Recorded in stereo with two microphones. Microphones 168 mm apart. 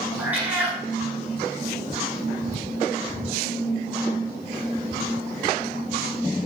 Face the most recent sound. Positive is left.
turn(degrees=-10)  # may be behind; listen again after turning